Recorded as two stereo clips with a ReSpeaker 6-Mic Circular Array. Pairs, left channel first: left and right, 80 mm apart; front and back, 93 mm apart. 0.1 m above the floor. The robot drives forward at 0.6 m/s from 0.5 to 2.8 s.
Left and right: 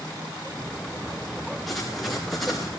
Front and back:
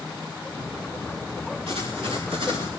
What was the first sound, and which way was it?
Writing, 175° left.